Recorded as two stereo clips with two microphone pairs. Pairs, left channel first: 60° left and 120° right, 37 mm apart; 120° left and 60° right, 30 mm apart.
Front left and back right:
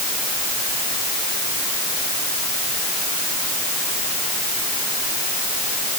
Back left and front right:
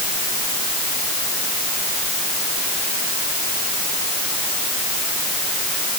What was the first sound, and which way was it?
Only background noise.